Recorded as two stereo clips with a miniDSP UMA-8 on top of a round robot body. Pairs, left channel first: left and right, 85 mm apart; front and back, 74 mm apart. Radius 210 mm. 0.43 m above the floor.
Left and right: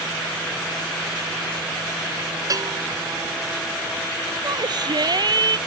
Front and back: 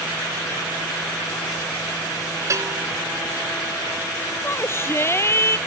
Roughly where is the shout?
Ahead right.